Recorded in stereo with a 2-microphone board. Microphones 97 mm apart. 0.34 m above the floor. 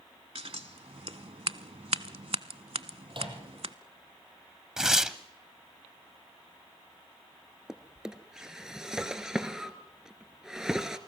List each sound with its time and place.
0.3 s scissors: 85° right, 0.7 m
3.1 s a microwave: 60° right (ahead or behind), 7.5 m
4.8 s tearing paper: 5° right (ahead or behind), 1.0 m
7.7 s a drawer: 5° right (ahead or behind), 1.4 m